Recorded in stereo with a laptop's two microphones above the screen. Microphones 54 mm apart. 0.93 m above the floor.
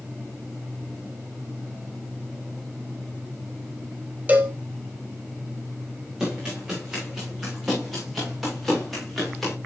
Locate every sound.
4.3 s a cowbell: 30° right (ahead or behind), 1.9 m
6.2 s running footsteps: 10° right (ahead or behind), 6.5 m; by 9.5 s centre (ahead or behind), 8.5 m